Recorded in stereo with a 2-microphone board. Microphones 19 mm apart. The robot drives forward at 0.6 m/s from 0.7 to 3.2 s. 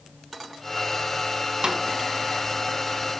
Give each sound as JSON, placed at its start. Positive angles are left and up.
{"t": 1.6, "sound": "a snare drum", "side_deg": -45, "distance_m": 1.0}